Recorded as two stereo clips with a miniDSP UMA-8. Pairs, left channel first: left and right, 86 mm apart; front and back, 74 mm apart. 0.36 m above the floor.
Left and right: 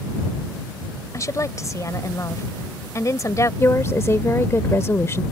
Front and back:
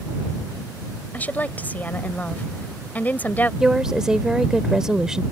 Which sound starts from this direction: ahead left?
A woman speaking, at 1.1 s.